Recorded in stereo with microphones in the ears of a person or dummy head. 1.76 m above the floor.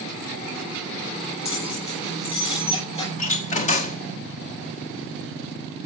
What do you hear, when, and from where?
1.4 s keys jangling: 30° left (ahead or behind), 7 m
3.2 s a door slam: 40° left (ahead or behind), 1.4 m